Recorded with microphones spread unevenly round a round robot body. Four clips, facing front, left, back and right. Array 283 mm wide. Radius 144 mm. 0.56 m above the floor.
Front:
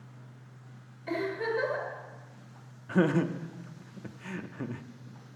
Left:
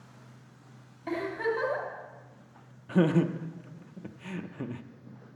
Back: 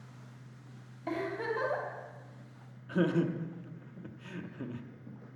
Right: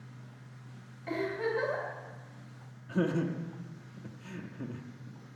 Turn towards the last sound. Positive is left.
turn(degrees=45)